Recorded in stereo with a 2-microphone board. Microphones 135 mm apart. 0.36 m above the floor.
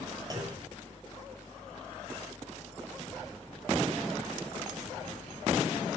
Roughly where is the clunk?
Right.